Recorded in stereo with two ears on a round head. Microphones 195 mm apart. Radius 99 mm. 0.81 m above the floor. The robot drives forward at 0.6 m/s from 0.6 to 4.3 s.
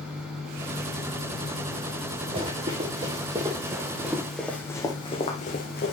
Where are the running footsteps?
25° right (ahead or behind), 4.5 m; by 5.9 s 45° left (ahead or behind), 2.5 m.